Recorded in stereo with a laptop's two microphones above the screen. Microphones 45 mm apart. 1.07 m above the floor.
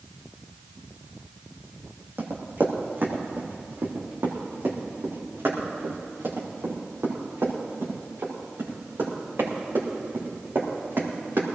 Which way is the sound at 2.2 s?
50° right (ahead or behind).